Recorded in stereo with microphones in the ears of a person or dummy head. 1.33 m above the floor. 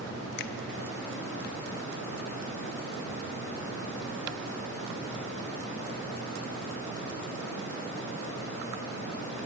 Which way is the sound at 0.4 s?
55° left (ahead or behind).